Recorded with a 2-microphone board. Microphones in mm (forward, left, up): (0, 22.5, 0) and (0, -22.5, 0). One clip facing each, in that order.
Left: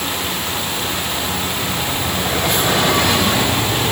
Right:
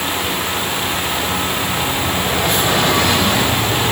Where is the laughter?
I don't hear laughter.